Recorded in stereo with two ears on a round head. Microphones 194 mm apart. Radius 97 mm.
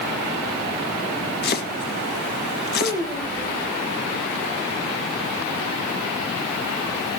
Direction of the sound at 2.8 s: 15° left (ahead or behind).